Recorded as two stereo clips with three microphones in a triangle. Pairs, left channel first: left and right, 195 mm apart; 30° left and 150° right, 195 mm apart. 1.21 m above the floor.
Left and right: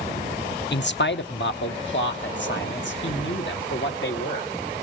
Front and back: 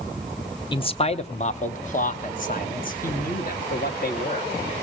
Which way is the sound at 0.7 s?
90° left.